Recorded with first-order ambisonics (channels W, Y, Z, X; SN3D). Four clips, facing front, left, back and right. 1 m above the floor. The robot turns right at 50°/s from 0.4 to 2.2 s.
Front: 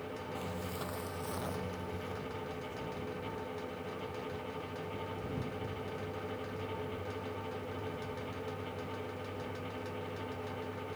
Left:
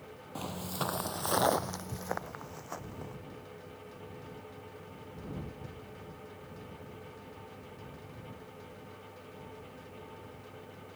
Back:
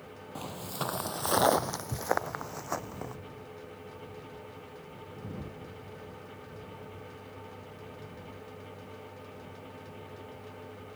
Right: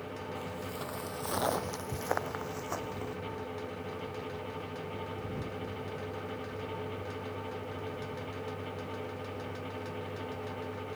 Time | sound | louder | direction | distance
0.3 | footsteps | left 7 dB, back 6 dB | 125° left | ?